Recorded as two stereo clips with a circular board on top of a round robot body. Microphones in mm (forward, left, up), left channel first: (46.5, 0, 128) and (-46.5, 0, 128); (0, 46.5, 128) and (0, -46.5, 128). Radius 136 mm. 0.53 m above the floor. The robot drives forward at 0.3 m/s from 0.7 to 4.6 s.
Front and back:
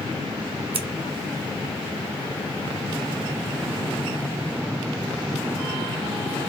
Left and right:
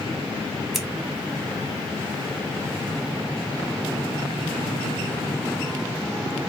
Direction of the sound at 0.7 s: Straight behind.